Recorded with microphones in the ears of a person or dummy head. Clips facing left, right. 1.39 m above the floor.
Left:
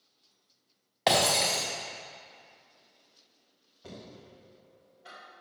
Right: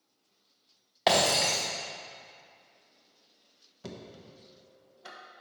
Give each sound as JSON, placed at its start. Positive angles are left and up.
{"t": 1.1, "sound": "breaking glass", "side_deg": 0, "distance_m": 1.0}
{"t": 3.8, "sound": "knocking", "side_deg": -80, "distance_m": 1.0}